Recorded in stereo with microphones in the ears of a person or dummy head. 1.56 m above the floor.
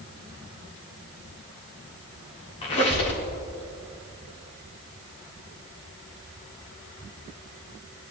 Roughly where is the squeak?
Left.